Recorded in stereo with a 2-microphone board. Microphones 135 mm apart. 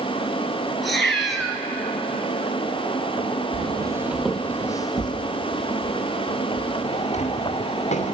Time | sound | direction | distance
0.8 | a cat meowing | centre (ahead or behind) | 2.5 m
3.5 | footsteps | 50° right (ahead or behind) | 0.7 m